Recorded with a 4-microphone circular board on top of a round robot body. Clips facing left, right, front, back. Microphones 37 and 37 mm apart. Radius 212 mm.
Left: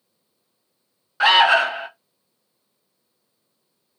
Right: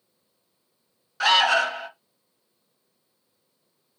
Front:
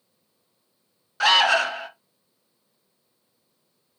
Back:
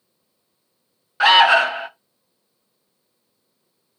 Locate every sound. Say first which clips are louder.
1.2 s an alarm: left 5 dB, back 6 dB; 135° left, 0.7 m